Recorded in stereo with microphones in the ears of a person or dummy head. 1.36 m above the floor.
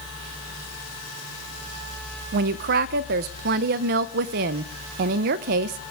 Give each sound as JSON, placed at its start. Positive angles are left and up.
{"t": 2.3, "sound": "a woman speaking", "side_deg": -55, "distance_m": 0.6}